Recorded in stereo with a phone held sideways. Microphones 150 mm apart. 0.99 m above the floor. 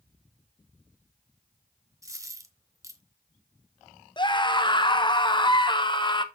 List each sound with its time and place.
2.0 s a dropped coin: 20° right (ahead or behind), 1.0 m
4.2 s a scream: 30° left (ahead or behind), 0.9 m